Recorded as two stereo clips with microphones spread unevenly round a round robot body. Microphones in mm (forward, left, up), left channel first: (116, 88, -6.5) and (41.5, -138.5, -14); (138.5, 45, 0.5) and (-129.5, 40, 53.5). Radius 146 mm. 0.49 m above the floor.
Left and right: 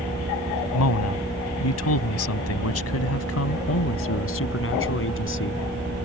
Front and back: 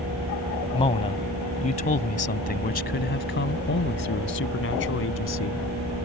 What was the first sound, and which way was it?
A man speaking, 70° left.